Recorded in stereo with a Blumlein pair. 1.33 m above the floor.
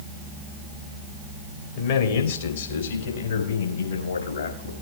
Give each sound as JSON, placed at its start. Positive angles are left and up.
{"t": 1.8, "sound": "a man speaking", "azimuth_deg": 55, "distance_m": 2.0}